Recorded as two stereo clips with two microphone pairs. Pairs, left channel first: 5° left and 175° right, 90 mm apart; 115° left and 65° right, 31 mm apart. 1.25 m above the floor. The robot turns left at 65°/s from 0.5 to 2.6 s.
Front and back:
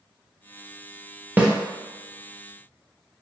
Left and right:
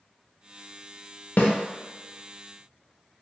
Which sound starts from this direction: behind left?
A snare drum, at 1.4 s.